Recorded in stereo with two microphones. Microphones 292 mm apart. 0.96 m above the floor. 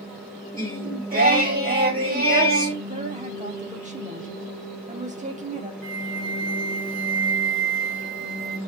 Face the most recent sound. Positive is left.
turn(degrees=35)  # may be behind; listen again after turning